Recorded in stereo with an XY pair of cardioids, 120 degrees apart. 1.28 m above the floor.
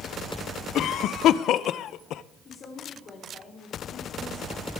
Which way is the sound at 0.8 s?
65° left.